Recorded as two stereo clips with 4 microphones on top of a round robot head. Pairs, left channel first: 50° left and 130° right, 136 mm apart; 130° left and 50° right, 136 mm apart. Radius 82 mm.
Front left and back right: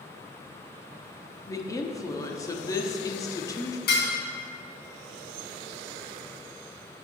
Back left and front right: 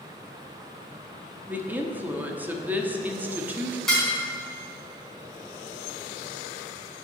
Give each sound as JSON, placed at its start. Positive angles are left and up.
{"t": 1.5, "sound": "a woman speaking", "azimuth_deg": 15, "distance_m": 1.0}
{"t": 3.9, "sound": "dishes clattering", "azimuth_deg": 45, "distance_m": 3.5}